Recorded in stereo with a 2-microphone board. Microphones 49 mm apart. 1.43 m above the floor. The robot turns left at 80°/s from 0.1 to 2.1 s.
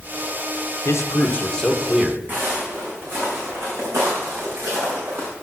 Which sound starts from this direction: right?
Footsteps, at 2.3 s.